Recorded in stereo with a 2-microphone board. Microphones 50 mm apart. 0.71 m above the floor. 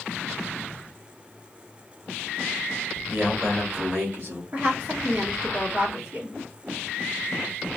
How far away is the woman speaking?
About 1.6 m.